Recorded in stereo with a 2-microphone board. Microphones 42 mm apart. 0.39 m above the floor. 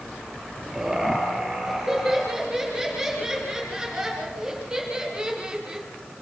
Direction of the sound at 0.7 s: 10° right (ahead or behind).